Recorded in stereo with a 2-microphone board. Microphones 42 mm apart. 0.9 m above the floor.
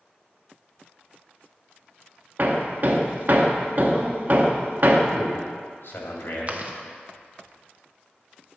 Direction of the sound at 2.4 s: 50° right (ahead or behind).